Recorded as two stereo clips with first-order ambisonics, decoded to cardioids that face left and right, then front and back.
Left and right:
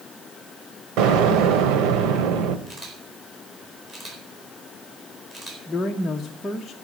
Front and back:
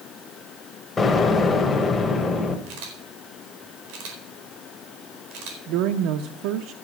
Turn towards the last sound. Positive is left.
turn(degrees=170)